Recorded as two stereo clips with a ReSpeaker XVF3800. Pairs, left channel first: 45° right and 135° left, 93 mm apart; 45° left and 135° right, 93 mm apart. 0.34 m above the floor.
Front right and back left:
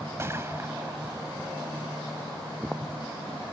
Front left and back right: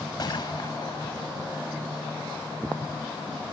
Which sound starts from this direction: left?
A gunshot, at 0.2 s.